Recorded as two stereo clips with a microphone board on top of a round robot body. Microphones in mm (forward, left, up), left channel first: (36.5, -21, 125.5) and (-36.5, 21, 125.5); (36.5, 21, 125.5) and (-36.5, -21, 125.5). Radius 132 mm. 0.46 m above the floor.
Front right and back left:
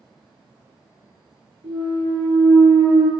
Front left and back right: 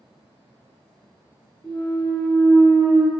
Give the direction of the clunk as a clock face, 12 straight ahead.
8 o'clock.